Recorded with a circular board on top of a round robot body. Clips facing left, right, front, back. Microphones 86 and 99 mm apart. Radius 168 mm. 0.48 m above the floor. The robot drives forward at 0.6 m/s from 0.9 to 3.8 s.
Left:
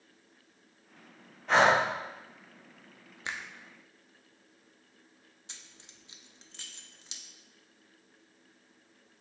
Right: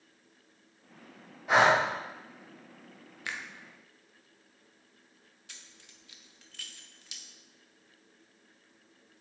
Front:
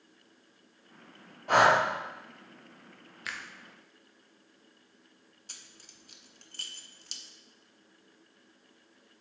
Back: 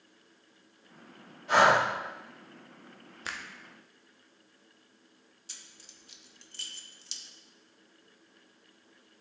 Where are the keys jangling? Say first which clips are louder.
Even, even; 25° left, 0.9 m.